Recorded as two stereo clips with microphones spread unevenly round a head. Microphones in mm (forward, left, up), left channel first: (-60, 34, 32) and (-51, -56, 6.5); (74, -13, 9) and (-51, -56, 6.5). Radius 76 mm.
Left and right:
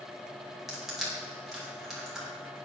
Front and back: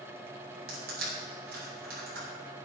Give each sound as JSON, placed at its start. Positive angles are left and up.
{"t": 0.7, "sound": "crushing", "azimuth_deg": -170, "distance_m": 5.0}